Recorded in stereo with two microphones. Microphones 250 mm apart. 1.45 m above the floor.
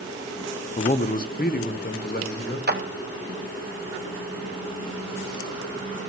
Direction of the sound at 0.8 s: 25° left (ahead or behind).